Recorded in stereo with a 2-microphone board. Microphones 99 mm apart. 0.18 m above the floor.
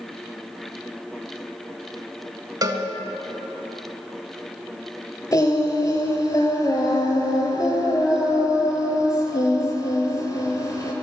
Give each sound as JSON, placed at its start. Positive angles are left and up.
{"t": 2.6, "sound": "a cowbell", "side_deg": -40, "distance_m": 0.6}
{"t": 5.3, "sound": "singing", "side_deg": 35, "distance_m": 1.0}